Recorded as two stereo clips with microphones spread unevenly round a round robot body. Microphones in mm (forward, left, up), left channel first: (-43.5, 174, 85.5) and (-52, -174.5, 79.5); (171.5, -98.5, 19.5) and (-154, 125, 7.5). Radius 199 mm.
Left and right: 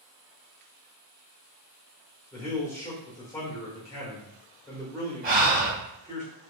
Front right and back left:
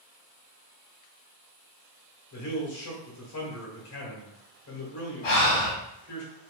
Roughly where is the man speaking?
Ahead.